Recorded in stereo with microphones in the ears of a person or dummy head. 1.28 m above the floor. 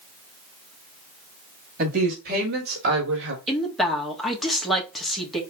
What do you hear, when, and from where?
1.8 s a woman speaking: 45° right (ahead or behind), 2.0 m; by 3.4 s 75° right (ahead or behind), 1.5 m
3.5 s a woman speaking: 5° left (ahead or behind), 1.4 m